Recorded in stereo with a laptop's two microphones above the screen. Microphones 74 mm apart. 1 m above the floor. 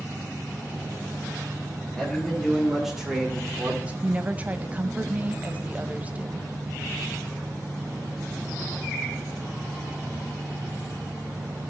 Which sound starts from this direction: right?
A woman speaking, at 4.0 s.